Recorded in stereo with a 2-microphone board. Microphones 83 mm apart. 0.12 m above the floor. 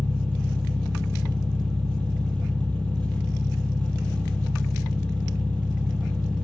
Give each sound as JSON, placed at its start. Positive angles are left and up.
{"t": 0.0, "sound": "an engine running", "side_deg": 15, "distance_m": 0.8}